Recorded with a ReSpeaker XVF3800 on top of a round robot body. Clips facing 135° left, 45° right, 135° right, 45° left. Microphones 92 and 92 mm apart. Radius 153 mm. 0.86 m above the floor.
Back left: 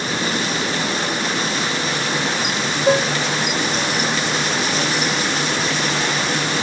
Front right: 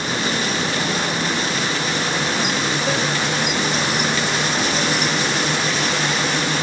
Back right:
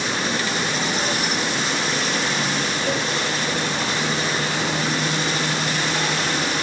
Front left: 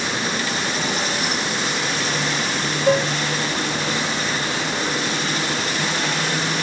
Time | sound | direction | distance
2.9 | dishes clattering | 75° left | ?